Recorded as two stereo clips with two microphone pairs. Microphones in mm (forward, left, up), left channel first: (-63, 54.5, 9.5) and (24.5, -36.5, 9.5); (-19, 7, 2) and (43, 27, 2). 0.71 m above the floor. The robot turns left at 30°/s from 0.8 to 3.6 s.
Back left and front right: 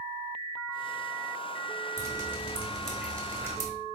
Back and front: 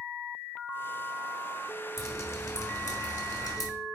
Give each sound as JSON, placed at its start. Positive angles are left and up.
{"t": 2.0, "sound": "dripping", "azimuth_deg": -110, "distance_m": 1.4}